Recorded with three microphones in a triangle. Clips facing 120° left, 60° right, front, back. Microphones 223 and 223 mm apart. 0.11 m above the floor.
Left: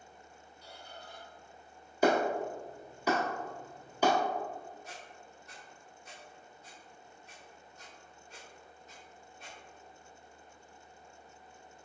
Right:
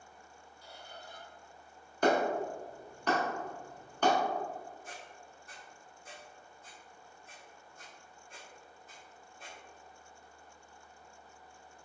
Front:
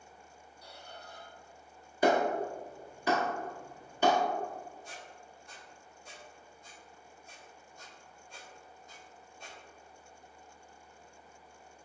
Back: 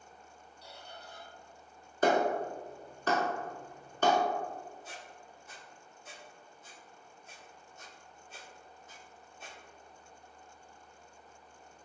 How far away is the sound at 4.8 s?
About 1.3 m.